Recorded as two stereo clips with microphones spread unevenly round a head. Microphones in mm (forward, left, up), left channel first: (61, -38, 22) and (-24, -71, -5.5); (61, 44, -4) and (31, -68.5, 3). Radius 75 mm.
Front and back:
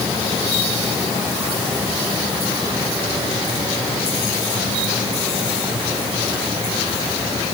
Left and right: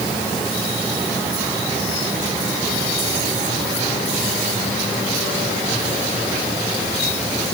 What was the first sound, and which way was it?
Only background noise.